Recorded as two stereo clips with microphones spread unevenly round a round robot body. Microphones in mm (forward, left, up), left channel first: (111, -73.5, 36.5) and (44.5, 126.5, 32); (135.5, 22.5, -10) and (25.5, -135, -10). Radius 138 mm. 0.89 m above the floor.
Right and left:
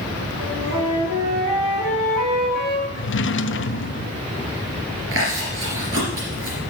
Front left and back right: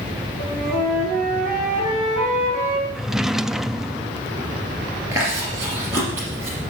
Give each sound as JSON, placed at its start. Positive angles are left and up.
{"t": 0.4, "sound": "a flute", "azimuth_deg": 145, "distance_m": 7.5}
{"t": 3.0, "sound": "a drawer", "azimuth_deg": -35, "distance_m": 0.5}
{"t": 5.1, "sound": "chewing", "azimuth_deg": 155, "distance_m": 3.0}